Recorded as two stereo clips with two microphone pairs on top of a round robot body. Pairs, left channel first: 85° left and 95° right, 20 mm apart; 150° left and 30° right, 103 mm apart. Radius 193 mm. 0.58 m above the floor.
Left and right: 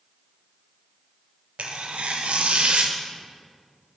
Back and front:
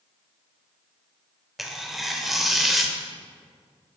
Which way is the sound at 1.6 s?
115° right.